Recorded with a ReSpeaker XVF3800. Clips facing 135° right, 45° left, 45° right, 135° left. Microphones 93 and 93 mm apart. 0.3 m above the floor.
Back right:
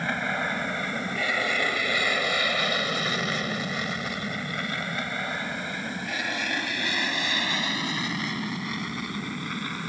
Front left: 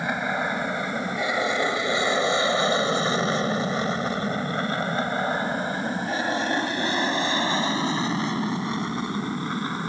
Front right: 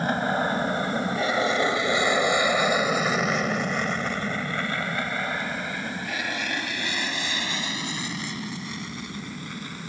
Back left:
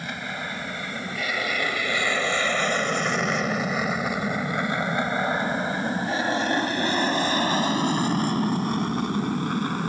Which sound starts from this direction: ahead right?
An aircraft, at 0.0 s.